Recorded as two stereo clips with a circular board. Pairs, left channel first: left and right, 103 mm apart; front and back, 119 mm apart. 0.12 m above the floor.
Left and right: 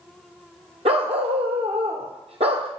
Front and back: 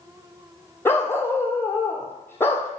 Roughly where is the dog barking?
Right.